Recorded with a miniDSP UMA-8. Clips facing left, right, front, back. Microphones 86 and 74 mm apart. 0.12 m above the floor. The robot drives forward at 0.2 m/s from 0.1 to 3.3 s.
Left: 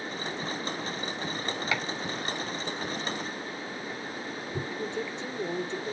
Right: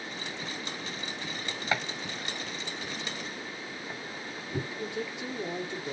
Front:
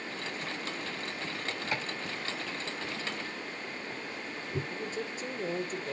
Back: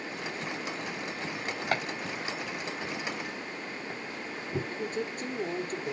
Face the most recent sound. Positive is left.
turn(degrees=-165)